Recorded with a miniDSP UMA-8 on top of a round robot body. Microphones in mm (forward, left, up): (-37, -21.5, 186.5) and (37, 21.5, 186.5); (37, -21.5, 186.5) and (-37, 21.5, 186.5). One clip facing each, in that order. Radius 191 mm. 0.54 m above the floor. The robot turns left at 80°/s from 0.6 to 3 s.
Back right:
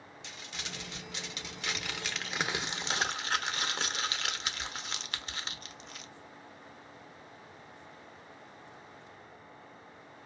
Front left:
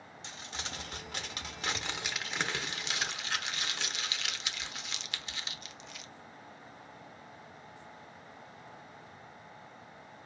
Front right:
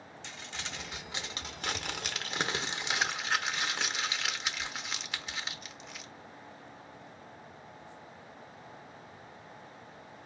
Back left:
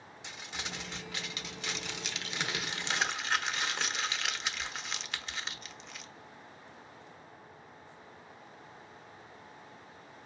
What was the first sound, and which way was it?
Crumpling, 75° left.